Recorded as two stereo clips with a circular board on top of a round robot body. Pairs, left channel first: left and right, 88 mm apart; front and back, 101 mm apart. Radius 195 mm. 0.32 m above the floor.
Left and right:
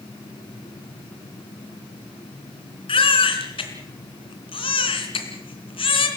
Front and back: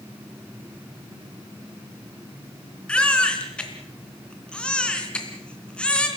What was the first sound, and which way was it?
A baby crying, 80° left.